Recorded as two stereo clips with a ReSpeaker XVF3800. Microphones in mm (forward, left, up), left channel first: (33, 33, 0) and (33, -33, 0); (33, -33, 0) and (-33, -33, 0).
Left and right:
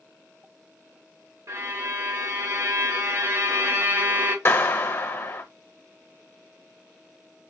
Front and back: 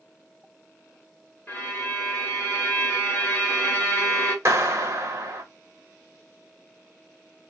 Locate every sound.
1.5 s a violin: 60° right, 1.4 m
4.5 s a clap: 135° left, 1.0 m